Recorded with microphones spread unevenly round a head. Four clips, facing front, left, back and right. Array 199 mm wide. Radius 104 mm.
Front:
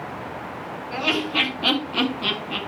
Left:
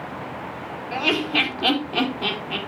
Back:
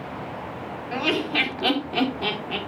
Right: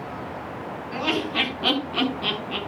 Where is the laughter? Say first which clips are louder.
Left 2 dB, even; 145° left, 4.5 m; by 2.6 s 160° left, 4.5 m.